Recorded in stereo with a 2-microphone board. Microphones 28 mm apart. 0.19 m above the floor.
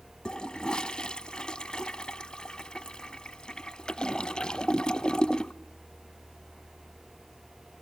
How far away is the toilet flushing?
About 0.8 m.